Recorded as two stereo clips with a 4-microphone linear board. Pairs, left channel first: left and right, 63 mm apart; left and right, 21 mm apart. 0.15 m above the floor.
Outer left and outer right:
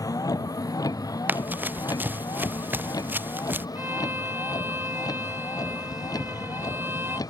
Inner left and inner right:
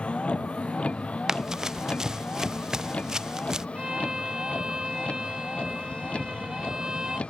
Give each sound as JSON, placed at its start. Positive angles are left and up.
{"t": 0.0, "sound": "a vehicle", "side_deg": 75}
{"t": 1.3, "sound": "running footsteps", "side_deg": -30}
{"t": 3.8, "sound": "a violin", "side_deg": -35}